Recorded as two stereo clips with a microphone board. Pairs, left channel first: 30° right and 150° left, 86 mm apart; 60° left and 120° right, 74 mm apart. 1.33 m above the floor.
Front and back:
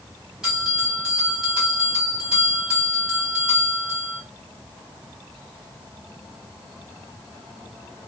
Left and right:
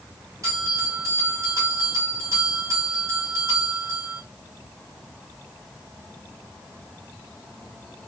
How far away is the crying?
I don't hear crying.